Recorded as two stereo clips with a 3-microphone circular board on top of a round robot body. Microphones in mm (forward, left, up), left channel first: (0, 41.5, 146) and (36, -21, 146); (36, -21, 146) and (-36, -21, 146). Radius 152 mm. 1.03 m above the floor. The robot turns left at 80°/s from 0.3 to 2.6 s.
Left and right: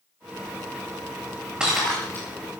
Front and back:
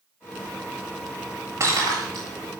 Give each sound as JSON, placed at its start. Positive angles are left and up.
{"t": 1.6, "sound": "breaking glass", "azimuth_deg": -135, "distance_m": 7.5}